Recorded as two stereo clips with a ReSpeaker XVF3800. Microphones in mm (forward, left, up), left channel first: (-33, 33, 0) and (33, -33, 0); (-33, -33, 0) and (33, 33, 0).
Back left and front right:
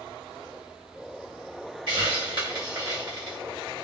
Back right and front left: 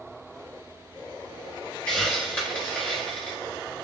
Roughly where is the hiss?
Ahead right.